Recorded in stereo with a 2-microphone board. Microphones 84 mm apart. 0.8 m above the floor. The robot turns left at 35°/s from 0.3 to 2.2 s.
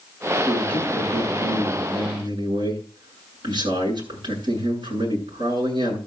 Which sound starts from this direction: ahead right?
A man speaking, at 0.5 s.